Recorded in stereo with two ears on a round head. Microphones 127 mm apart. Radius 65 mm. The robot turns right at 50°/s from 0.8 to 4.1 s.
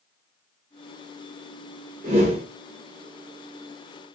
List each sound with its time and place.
2.0 s a whoosh: 55° right (ahead or behind), 1.2 m; by 2.5 s 45° right (ahead or behind), 1.2 m